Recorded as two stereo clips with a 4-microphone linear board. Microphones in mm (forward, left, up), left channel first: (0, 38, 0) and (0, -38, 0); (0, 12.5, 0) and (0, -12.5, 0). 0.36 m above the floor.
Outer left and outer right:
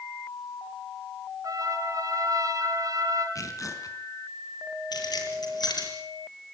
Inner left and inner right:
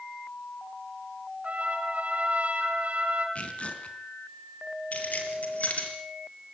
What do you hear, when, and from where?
1.4 s a trumpet: 50° right (ahead or behind), 3.5 m
3.4 s tearing paper: 50° left (ahead or behind), 3.5 m
4.9 s keys jangling: 65° left (ahead or behind), 5 m